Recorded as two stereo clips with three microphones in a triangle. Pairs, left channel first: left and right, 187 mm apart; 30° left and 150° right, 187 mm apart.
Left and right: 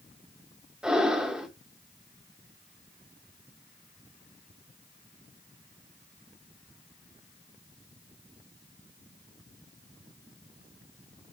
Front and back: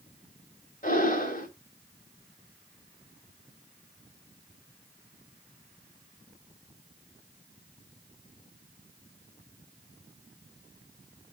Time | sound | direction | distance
0.8 | breathing | 5° right | 1.9 m